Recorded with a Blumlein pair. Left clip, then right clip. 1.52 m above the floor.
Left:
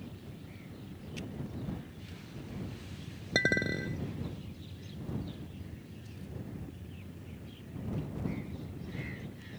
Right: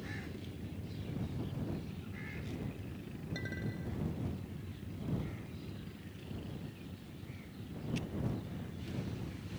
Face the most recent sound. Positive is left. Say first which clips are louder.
# left 16 dB
turn(degrees=35)